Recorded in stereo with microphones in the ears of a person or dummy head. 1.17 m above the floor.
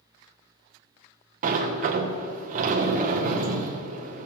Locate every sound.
1.4 s a sliding door: 35° right (ahead or behind), 0.6 m